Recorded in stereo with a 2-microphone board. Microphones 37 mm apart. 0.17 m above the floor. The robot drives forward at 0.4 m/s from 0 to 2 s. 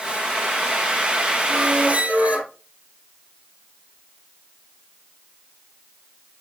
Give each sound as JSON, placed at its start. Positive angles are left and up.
{"t": 1.5, "sound": "a squeak", "side_deg": -45, "distance_m": 1.7}